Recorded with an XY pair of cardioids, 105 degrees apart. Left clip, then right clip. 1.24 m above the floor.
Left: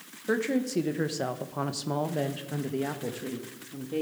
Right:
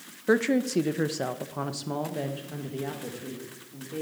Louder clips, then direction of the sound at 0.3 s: Right 4 dB; 35° right.